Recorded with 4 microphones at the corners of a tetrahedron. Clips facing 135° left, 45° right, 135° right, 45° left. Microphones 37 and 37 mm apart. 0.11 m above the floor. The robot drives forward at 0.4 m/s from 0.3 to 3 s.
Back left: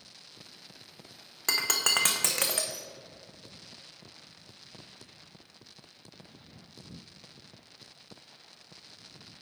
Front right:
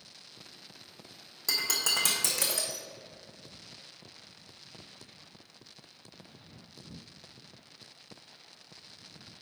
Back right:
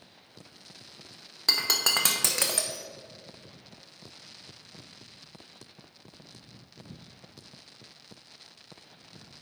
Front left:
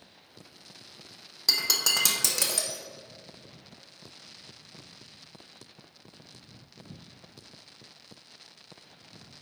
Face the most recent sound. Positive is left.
turn(degrees=170)